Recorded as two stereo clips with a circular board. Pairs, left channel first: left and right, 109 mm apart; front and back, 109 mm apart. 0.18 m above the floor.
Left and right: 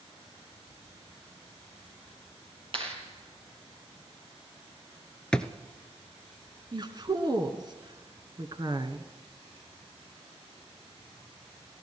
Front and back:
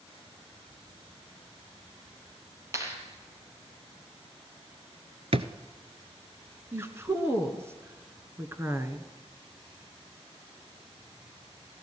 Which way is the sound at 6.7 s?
120° right.